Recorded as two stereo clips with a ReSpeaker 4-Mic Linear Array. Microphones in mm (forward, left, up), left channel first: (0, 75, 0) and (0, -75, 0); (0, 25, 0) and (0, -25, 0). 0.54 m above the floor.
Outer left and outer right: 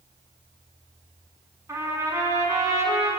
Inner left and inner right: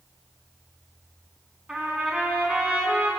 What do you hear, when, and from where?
1.7 s a trumpet: 20° right (ahead or behind), 5.5 m